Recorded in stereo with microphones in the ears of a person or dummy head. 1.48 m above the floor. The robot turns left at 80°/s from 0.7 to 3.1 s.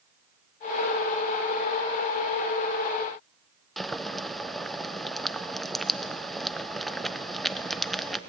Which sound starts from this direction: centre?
Boiling, at 3.8 s.